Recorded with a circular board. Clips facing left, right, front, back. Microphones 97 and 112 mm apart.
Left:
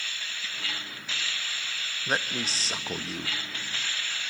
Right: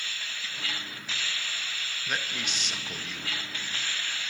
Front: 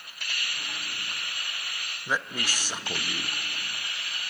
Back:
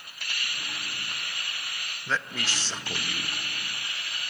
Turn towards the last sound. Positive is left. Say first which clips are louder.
# left 5 dB, front 1 dB
turn(degrees=70)